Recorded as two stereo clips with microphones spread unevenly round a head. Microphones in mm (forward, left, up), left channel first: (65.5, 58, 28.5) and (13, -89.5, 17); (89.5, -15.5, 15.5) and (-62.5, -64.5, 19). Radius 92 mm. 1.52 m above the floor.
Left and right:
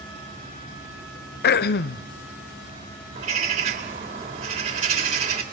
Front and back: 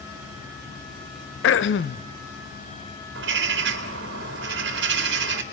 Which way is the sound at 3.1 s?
165° right.